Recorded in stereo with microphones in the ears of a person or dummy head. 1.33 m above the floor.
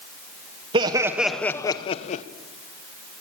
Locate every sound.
0.7 s laughter: 25° right (ahead or behind), 1.1 m; by 2.2 s 45° left (ahead or behind), 1.2 m